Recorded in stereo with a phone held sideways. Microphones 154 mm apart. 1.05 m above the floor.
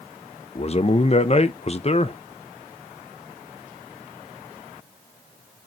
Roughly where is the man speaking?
Left.